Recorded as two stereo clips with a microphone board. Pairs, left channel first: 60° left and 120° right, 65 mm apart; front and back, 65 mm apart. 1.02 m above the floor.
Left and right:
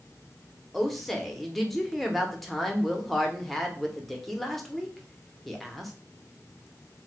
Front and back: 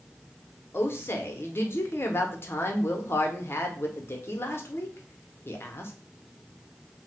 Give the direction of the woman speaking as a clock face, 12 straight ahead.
1 o'clock.